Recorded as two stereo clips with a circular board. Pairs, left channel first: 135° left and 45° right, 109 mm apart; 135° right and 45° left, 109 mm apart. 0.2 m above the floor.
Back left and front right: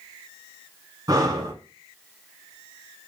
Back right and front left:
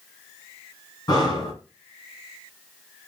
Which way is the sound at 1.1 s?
95° right.